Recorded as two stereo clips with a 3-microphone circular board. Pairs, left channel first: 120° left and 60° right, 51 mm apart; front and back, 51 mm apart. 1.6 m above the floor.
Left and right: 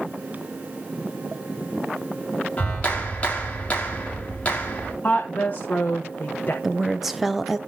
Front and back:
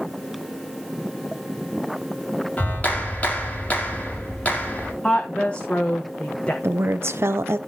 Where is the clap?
60° left, 3 m.